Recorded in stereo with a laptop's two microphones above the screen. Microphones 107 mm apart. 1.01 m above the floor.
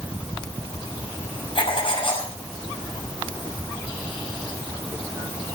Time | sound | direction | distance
1.6 | writing | 55° left (ahead or behind) | 5.5 m